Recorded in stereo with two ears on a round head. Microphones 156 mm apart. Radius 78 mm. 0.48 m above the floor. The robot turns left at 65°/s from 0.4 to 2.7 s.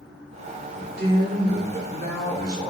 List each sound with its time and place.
0.8 s a man speaking: 35° right, 1.3 m; by 2.7 s 160° right, 1.3 m